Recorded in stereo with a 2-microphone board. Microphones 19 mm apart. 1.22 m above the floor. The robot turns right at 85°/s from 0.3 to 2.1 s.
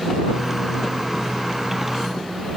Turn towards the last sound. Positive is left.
No sound to turn to.